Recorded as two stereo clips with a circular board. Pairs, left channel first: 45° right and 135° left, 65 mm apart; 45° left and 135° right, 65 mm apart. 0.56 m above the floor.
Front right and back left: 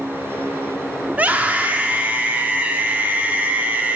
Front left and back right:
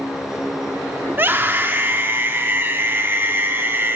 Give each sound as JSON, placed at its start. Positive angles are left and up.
{"t": 1.1, "sound": "a scream", "azimuth_deg": -170, "distance_m": 0.8}